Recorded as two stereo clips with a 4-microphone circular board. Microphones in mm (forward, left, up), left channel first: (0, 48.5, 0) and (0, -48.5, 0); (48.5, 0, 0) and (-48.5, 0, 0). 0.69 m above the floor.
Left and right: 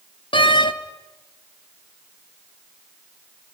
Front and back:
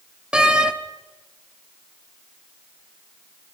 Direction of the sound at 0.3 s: 100° left.